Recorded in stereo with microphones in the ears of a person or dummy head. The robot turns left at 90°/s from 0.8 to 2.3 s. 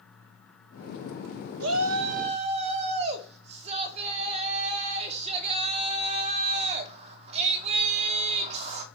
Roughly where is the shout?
Right.